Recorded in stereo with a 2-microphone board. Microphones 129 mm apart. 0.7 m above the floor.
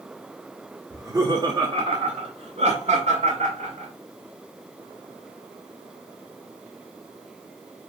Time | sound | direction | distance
0.9 | laughter | 20° right (ahead or behind) | 1.2 m